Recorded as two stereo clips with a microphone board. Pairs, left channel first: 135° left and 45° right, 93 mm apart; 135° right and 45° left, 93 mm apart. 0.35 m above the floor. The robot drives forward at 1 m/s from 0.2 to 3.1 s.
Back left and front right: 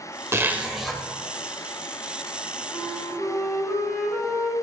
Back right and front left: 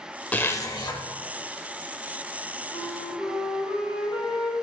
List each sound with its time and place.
0.3 s a zipper: 75° right, 0.7 m; by 1.0 s 145° right, 0.9 m
2.7 s a flute: 140° right, 1.5 m; by 4.5 s 150° right, 1.8 m